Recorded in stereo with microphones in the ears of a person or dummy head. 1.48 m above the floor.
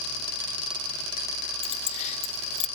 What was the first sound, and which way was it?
Keys jangling, 35° left (ahead or behind).